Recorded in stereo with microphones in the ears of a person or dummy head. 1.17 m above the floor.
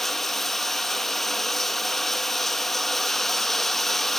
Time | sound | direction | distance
0.0 | running water | centre (ahead or behind) | 0.8 m